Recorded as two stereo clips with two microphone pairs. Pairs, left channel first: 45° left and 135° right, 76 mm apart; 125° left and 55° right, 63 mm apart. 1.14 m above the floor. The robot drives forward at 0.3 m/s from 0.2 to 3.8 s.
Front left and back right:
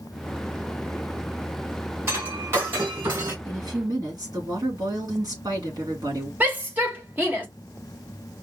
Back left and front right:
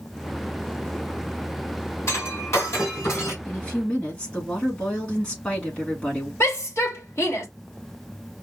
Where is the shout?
160° left, 1.2 m.